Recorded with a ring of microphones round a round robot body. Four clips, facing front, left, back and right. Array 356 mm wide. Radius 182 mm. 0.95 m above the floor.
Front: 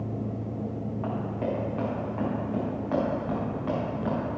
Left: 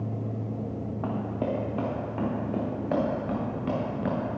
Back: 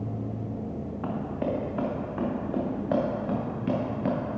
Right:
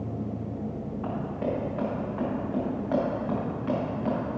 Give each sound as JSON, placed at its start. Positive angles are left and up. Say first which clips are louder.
{"t": 1.0, "sound": "running footsteps", "louder": "left 1 dB, back 1 dB", "azimuth_deg": 105, "distance_m": 4.5}